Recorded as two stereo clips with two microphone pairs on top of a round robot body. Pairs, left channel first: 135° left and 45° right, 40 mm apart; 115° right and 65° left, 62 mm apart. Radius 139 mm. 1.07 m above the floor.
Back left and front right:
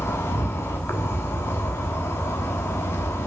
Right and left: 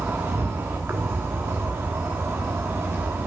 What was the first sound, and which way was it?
An insect, 125° left.